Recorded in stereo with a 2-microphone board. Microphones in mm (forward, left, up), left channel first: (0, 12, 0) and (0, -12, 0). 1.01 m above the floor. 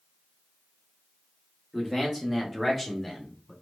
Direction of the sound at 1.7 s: 5° right (ahead or behind).